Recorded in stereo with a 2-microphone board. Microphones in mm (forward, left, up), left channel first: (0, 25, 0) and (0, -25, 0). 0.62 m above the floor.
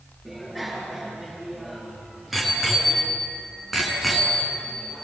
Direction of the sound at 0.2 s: 5° right (ahead or behind).